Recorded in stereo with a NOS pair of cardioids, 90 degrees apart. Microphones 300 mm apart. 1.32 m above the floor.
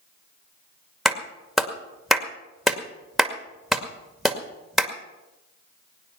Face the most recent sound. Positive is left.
turn(degrees=0)